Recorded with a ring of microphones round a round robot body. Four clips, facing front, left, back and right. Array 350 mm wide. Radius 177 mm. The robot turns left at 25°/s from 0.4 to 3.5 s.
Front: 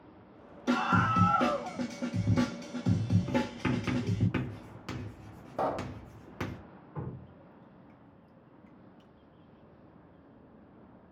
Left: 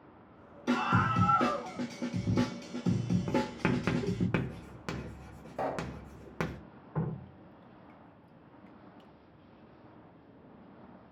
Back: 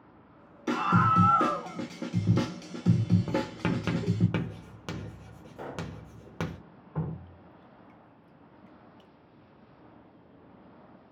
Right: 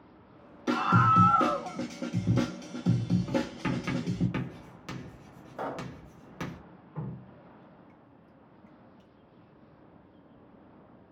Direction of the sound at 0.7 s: 130° right.